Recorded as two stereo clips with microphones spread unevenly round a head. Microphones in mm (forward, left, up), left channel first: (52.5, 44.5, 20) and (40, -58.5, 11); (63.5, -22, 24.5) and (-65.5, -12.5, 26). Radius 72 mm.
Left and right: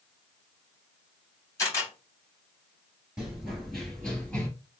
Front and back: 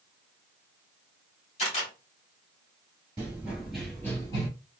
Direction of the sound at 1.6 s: 35° left.